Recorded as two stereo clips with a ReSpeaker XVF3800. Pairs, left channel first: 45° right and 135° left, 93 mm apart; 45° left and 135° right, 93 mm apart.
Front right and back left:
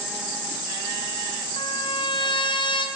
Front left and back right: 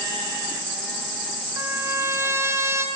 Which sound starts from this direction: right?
A trumpet, at 1.6 s.